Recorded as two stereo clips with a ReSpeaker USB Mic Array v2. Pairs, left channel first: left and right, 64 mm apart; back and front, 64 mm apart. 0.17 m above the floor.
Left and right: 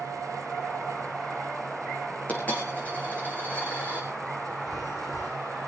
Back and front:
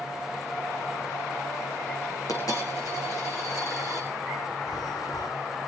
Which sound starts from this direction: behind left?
A dropped coin, at 2.3 s.